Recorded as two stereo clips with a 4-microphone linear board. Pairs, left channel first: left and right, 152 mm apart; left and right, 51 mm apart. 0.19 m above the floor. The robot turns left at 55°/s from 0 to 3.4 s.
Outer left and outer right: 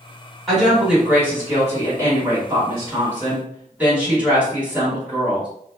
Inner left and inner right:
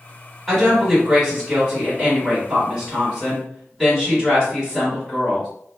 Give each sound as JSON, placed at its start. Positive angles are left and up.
{"t": 0.5, "sound": "a woman speaking", "side_deg": 5, "distance_m": 1.6}